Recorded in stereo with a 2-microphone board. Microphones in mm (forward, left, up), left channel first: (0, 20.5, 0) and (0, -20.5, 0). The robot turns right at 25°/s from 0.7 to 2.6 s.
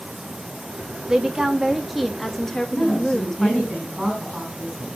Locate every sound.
1.1 s a woman speaking: 25° right, 0.8 m; by 3.7 s 15° left, 0.8 m
2.7 s a woman speaking: 5° right (ahead or behind), 5.5 m